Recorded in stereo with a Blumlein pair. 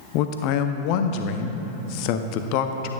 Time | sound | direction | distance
0.1 | a man speaking | 45° left | 0.6 m